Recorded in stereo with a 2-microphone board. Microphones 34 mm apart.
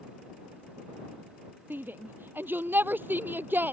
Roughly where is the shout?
Right.